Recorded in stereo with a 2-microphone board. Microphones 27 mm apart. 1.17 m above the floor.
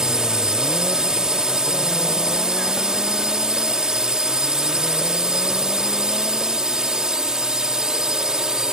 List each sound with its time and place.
0.0 s a drone: 25° right (ahead or behind)